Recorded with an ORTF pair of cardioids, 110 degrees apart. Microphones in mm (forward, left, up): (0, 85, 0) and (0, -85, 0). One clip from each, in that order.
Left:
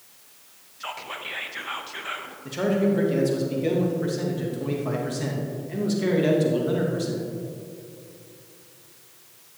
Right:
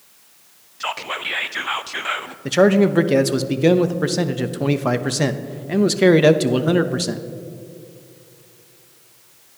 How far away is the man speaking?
About 0.7 m.